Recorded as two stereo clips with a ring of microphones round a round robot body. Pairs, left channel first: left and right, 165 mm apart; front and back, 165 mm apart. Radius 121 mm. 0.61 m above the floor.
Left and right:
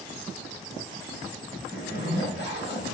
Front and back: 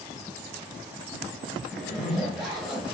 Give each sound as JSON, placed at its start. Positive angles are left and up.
{"t": 1.7, "sound": "a zipper", "azimuth_deg": 95, "distance_m": 1.5}